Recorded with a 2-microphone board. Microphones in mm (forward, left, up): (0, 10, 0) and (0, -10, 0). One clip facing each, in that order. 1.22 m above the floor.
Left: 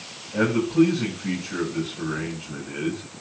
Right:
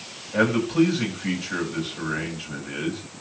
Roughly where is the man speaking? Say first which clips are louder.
Even; right.